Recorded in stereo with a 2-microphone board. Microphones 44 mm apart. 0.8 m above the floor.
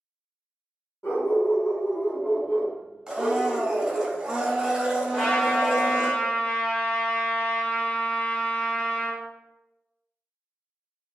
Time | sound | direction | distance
1.0 | a dog barking | 75° left (ahead or behind) | 1.1 m
3.1 | a blender | 15° right (ahead or behind) | 0.5 m
5.1 | a trumpet | 25° left (ahead or behind) | 1.0 m